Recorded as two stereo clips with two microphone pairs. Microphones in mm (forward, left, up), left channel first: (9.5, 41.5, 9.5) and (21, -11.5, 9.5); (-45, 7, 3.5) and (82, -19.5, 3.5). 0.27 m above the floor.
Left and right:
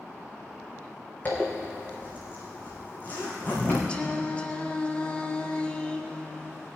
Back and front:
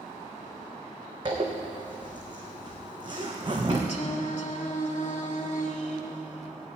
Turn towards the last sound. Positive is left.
turn(degrees=165)